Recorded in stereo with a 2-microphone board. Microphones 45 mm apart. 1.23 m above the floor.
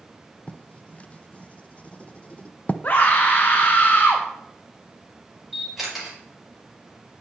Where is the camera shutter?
5° right (ahead or behind), 6 m.